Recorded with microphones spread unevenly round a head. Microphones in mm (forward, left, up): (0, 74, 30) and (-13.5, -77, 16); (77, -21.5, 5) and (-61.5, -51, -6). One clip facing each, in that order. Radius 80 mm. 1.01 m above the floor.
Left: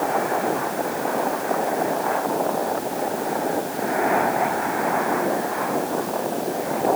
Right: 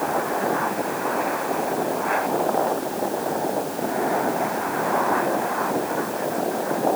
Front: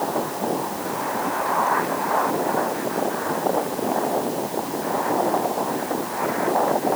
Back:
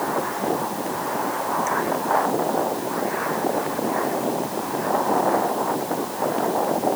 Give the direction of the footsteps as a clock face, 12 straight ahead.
No footsteps in this recording.